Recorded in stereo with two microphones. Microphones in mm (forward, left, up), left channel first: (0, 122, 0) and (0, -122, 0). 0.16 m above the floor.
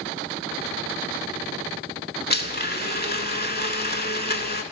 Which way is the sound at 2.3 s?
40° left (ahead or behind).